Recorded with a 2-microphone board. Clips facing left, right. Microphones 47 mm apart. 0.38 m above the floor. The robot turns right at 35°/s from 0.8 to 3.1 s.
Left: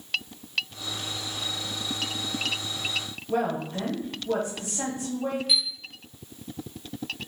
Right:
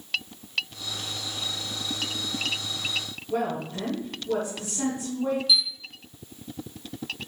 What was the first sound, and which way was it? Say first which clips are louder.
A woman speaking: left 1 dB; 45° left (ahead or behind).